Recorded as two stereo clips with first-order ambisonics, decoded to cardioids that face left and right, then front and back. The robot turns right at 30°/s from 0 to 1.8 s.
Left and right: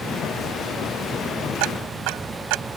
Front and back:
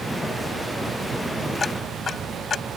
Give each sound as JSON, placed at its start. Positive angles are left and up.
{"t": 1.6, "sound": "ticking", "azimuth_deg": -75}